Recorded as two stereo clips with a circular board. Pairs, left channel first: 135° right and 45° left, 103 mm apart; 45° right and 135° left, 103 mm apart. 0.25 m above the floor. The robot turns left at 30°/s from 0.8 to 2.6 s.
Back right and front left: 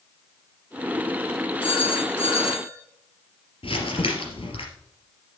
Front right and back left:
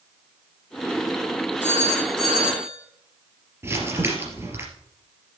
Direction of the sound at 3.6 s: 160° right.